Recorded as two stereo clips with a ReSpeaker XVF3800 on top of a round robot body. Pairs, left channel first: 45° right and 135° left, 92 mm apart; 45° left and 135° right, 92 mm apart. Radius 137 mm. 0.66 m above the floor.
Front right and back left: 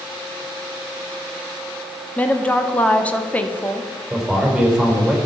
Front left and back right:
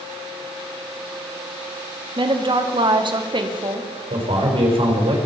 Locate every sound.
2.2 s a woman speaking: 120° right, 1.7 m
4.1 s a man speaking: 140° right, 4.5 m